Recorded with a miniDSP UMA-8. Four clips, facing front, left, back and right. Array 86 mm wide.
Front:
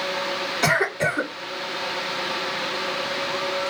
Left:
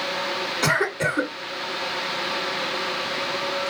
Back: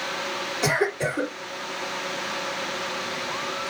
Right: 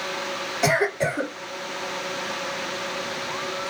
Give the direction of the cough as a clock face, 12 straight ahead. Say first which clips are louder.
Right 2 dB, front 2 dB; 10 o'clock.